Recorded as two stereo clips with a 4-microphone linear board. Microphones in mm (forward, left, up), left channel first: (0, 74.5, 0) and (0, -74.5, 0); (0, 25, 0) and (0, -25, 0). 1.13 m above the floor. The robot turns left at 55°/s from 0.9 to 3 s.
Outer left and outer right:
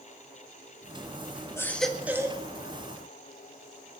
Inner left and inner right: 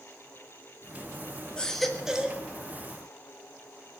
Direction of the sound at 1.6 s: 20° left.